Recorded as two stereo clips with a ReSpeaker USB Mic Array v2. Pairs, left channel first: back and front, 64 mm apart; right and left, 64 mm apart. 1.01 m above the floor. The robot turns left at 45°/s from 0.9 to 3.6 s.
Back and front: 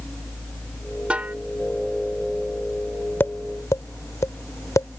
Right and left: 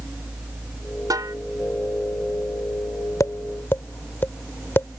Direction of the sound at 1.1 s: 70° left.